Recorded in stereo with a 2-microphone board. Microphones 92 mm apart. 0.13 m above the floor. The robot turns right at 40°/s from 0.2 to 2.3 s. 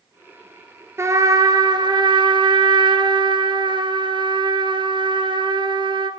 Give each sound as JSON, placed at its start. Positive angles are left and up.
{"t": 1.0, "sound": "a trumpet", "azimuth_deg": -145, "distance_m": 0.9}